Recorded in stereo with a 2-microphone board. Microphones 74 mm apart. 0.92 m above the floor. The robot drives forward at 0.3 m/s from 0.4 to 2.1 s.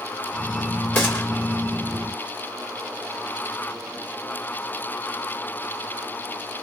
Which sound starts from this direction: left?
A gunshot, at 0.9 s.